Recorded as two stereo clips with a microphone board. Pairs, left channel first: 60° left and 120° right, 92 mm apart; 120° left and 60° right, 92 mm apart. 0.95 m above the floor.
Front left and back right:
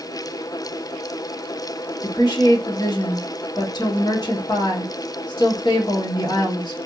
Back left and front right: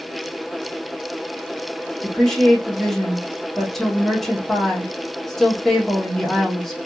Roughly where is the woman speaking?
Ahead left.